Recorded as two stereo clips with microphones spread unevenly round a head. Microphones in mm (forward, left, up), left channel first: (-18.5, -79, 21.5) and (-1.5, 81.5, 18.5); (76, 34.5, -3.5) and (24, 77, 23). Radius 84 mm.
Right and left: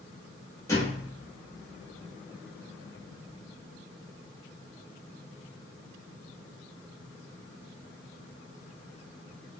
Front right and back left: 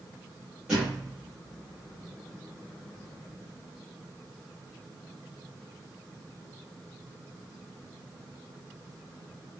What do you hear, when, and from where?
0.7 s a thud: 160° right, 0.9 m